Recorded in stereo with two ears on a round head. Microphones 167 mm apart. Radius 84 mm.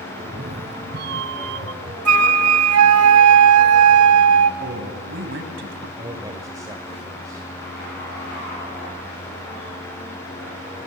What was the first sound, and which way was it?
A cat meowing, 35° right (ahead or behind).